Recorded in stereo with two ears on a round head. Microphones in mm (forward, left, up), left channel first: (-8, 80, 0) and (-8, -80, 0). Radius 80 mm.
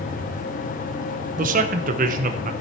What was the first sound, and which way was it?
A man speaking, 50° right (ahead or behind).